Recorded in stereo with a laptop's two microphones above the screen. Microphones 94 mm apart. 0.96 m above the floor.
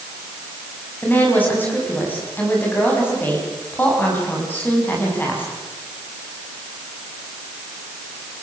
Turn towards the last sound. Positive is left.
turn(degrees=20)  # may be behind; listen again after turning